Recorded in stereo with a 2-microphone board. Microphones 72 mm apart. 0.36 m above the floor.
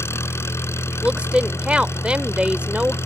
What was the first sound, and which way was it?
An engine running, 35° left (ahead or behind).